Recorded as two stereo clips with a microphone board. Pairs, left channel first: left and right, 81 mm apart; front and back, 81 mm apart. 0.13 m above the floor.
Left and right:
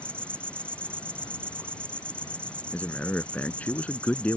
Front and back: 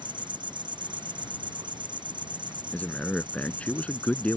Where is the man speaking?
50° left.